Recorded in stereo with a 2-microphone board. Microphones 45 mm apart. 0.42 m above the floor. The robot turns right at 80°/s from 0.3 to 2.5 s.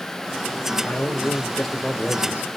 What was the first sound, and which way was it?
A man speaking, 105° left.